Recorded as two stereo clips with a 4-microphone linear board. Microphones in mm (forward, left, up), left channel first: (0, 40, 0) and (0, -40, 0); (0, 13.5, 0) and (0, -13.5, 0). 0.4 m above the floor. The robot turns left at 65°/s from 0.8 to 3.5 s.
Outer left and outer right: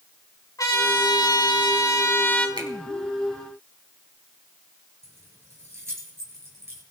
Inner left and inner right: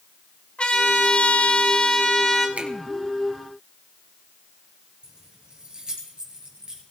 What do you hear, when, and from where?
0.6 s a trumpet: 125° left, 3 m; by 2.5 s 20° left, 3 m
2.6 s a finger snap: 70° right (ahead or behind), 3.5 m; by 2.7 s 65° right (ahead or behind), 3.5 m
5.0 s keys jangling: 35° right (ahead or behind), 5 m